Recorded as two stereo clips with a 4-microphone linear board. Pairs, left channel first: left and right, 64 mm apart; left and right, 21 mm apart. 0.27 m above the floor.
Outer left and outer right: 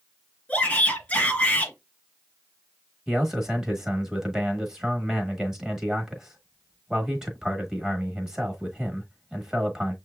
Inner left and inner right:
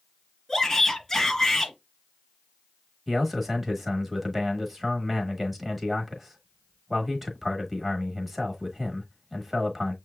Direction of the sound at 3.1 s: 10° right (ahead or behind).